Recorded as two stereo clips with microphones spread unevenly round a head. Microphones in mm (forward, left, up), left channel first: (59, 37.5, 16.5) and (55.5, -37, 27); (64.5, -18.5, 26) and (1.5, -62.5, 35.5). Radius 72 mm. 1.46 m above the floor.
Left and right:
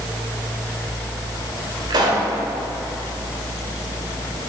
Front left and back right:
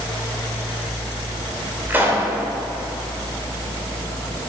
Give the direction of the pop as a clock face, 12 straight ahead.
3 o'clock.